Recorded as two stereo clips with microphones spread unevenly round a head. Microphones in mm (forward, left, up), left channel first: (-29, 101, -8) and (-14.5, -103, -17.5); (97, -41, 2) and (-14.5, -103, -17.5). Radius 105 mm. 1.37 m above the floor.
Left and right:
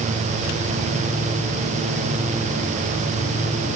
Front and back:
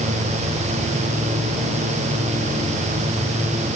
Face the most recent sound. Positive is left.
No sound to turn to.